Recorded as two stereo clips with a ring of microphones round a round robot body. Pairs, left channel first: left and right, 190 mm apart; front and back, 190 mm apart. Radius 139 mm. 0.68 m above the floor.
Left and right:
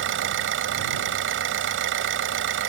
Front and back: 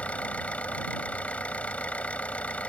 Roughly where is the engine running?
Right.